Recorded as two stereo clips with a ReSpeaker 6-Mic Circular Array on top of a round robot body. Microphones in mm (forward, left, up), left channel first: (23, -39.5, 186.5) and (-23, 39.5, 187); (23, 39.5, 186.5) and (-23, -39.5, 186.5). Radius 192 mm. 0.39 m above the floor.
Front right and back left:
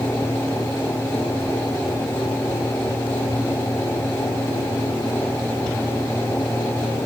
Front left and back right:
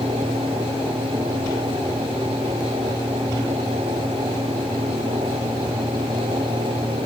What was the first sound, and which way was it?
Only background noise.